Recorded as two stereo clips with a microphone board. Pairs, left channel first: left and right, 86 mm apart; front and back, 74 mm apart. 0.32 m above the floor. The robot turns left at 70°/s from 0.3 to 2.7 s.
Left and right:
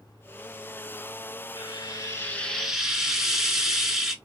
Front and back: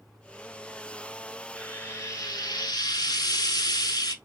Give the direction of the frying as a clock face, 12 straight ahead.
10 o'clock.